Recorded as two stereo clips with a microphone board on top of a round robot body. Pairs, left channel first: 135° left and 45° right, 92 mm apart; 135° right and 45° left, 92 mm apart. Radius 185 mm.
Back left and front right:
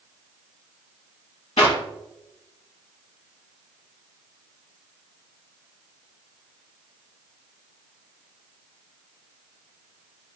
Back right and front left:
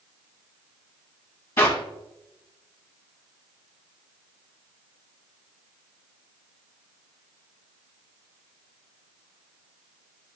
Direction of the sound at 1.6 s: 160° left.